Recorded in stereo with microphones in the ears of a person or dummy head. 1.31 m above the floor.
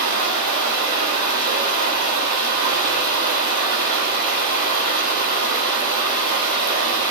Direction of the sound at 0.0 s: 65° right (ahead or behind).